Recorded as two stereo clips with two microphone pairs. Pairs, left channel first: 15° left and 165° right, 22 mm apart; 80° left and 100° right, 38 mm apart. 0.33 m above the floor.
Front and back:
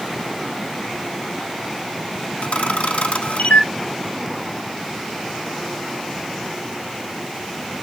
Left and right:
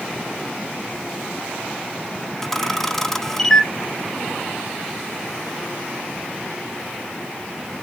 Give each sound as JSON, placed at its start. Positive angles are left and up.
{"t": 2.4, "sound": "a camera shutter", "azimuth_deg": 5, "distance_m": 0.5}